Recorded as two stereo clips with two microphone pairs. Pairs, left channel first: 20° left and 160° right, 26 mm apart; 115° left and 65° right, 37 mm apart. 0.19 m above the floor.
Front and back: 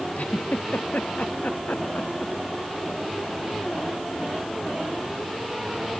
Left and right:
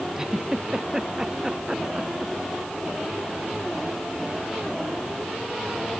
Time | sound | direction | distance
0.1 | a giggle | 10° left | ?